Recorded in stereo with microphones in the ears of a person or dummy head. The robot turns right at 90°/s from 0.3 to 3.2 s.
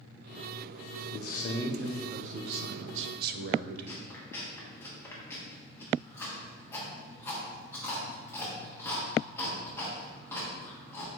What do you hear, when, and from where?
1.1 s a man speaking: 115° left, 0.6 m; by 4.1 s 55° right, 0.6 m
3.9 s chewing: 15° left (ahead or behind), 1.6 m